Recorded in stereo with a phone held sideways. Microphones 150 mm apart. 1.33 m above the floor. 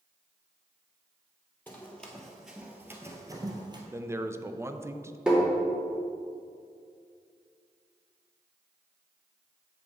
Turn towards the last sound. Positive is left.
turn(degrees=-5)  # may be behind; listen again after turning